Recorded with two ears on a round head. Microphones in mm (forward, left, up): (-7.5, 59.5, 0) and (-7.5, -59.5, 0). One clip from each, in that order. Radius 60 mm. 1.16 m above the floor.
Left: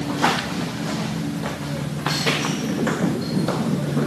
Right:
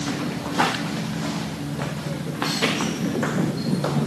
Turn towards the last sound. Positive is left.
No sound to turn to.